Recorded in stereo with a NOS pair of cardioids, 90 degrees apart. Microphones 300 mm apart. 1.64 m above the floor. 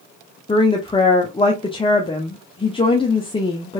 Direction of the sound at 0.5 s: 20° left.